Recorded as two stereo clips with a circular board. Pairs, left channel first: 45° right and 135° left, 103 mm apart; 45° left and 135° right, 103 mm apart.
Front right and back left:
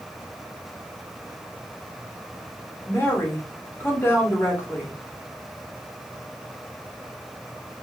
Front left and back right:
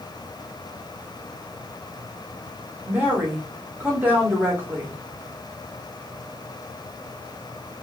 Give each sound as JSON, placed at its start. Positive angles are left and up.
{"t": 2.9, "sound": "a woman speaking", "azimuth_deg": -80, "distance_m": 0.8}